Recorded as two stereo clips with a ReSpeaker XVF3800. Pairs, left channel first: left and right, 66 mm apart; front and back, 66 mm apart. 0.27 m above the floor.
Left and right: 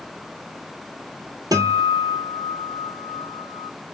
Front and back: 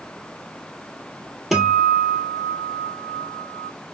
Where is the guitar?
90° right, 1.0 m.